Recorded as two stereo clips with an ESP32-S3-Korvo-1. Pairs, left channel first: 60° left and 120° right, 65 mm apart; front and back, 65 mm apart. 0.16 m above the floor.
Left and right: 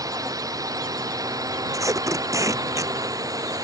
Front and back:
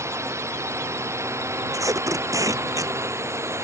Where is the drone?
140° right; by 3.6 s 135° right.